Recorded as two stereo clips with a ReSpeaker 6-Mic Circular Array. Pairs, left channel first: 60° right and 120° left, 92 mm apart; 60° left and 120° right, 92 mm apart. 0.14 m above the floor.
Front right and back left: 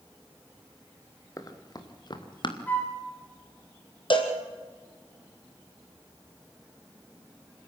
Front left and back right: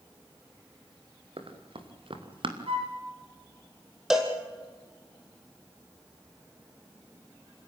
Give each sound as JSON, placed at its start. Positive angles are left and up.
{"t": 1.4, "sound": "running footsteps", "azimuth_deg": -110, "distance_m": 3.0}
{"t": 2.7, "sound": "a flute", "azimuth_deg": -130, "distance_m": 6.0}
{"t": 4.1, "sound": "a cowbell", "azimuth_deg": -35, "distance_m": 3.0}